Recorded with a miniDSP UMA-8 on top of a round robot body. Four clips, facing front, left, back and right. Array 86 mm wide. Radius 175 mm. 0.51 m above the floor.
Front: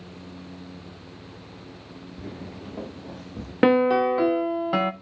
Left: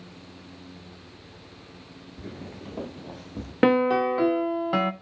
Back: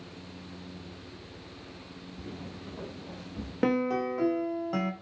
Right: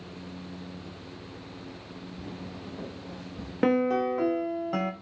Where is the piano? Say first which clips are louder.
Left 4 dB, front 9 dB; 35° left, 0.9 m.